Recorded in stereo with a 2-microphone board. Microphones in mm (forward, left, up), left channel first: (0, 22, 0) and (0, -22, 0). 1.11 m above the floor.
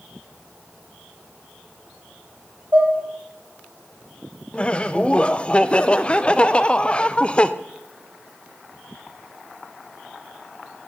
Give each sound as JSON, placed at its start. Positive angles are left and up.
{"t": 2.7, "sound": "dishes clattering", "side_deg": -55, "distance_m": 3.0}
{"t": 4.5, "sound": "laughter", "side_deg": 25, "distance_m": 0.5}